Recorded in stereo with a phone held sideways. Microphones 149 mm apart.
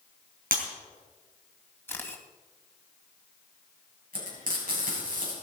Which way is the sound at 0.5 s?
80° right.